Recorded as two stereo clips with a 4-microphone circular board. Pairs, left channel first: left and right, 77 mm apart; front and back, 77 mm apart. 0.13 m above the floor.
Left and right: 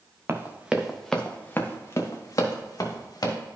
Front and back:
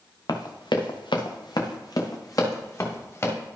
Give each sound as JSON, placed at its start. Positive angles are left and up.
{"t": 0.3, "sound": "running footsteps", "azimuth_deg": -30, "distance_m": 1.3}